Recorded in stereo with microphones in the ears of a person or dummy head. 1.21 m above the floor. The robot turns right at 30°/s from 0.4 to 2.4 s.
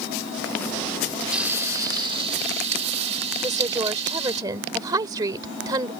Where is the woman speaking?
25° right (ahead or behind).